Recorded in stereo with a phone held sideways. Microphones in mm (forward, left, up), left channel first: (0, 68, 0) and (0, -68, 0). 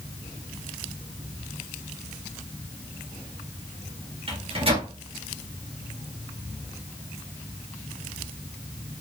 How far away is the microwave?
About 2.0 m.